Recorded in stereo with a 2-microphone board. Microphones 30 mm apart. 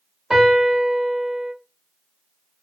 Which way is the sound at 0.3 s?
10° right (ahead or behind).